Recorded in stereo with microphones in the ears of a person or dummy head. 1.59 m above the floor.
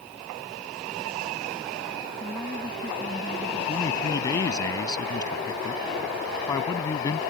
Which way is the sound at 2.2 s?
5° left (ahead or behind).